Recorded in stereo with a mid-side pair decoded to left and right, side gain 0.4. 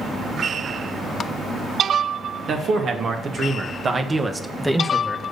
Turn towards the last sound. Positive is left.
turn(degrees=15)